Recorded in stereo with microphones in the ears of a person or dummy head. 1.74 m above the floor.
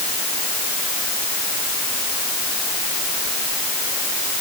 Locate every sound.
Only background noise.